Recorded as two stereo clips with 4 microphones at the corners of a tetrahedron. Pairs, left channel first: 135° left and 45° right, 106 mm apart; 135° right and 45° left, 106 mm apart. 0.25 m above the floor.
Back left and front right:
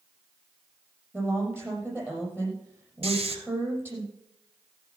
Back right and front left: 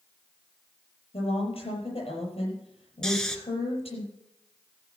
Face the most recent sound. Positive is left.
turn(degrees=-50)